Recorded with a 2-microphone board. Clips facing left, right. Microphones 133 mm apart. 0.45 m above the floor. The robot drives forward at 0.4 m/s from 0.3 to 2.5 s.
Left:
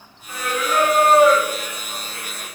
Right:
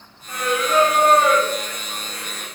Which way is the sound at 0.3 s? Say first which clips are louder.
Right 2 dB; 55° right (ahead or behind).